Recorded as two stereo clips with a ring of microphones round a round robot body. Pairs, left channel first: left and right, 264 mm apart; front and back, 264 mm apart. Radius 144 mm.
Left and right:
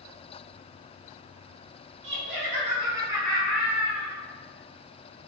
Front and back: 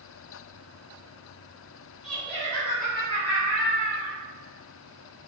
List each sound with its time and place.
2.0 s laughter: 90° right, 1.1 m; by 4.2 s 25° left, 1.5 m